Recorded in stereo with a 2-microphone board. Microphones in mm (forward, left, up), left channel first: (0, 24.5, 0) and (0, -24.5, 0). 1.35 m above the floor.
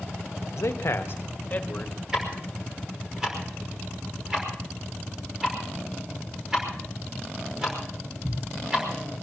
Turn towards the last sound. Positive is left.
turn(degrees=-10)  # may be behind; listen again after turning